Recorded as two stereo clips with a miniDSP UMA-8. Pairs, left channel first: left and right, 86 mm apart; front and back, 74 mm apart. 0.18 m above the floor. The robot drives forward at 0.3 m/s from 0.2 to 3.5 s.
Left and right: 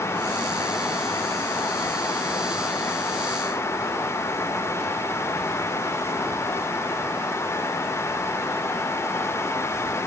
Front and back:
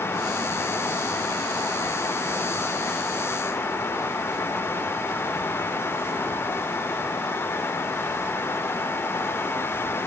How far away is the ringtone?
I don't hear a ringtone.